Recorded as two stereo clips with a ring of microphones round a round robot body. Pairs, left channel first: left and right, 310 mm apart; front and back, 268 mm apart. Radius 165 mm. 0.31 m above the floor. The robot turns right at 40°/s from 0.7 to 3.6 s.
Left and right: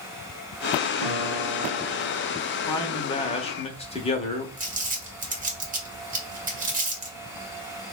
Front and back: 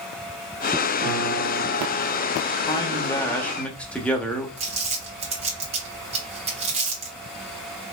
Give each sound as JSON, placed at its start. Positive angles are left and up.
{"t": 1.0, "sound": "a piano", "azimuth_deg": -105, "distance_m": 2.5}
{"t": 2.6, "sound": "a man speaking", "azimuth_deg": 40, "distance_m": 1.0}
{"t": 4.6, "sound": "crumpling", "azimuth_deg": -130, "distance_m": 1.7}